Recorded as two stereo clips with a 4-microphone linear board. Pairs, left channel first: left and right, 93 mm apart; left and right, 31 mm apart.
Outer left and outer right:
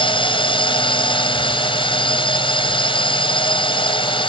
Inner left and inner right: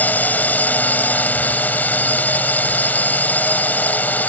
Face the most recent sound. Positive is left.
turn(degrees=65)  # may be behind; listen again after turning